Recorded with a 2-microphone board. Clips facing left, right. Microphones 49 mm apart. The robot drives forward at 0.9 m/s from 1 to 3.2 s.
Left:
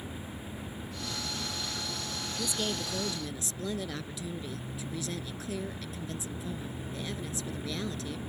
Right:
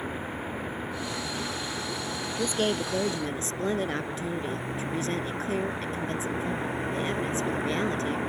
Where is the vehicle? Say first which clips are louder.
Right 8 dB; 60° right (ahead or behind); by 8.3 s 75° right (ahead or behind).